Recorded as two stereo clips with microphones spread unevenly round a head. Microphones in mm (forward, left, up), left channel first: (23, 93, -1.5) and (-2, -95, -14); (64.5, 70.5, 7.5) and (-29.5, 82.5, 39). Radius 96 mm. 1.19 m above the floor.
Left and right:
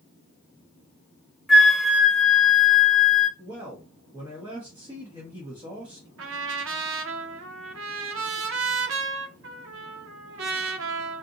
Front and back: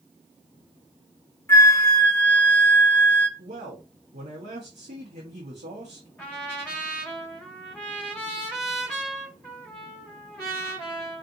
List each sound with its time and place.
1.5 s a flute: 15° right, 0.8 m
3.4 s a man speaking: 165° right, 1.1 m
6.2 s a trumpet: 80° right, 0.7 m